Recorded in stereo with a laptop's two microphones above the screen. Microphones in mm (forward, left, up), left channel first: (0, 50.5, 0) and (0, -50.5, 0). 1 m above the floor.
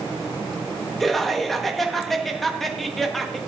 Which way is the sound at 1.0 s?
Centre (ahead or behind).